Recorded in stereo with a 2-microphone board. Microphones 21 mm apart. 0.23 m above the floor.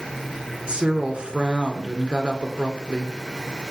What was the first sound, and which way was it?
A woman speaking, 65° right (ahead or behind).